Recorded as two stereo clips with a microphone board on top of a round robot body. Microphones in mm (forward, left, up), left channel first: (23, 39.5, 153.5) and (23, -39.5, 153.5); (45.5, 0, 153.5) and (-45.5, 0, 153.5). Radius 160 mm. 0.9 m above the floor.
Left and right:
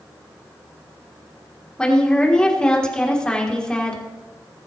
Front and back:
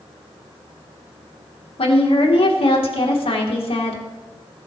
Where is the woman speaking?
10° left, 3 m.